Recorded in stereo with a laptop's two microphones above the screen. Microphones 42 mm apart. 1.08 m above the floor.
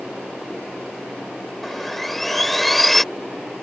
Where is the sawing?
5° left (ahead or behind).